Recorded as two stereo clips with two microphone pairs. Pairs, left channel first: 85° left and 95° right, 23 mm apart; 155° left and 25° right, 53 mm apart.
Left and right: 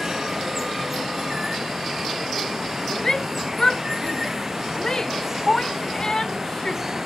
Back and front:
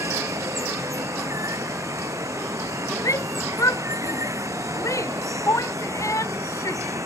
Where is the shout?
150° left.